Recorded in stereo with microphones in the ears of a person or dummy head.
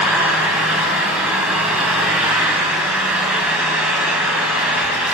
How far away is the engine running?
About 3 m.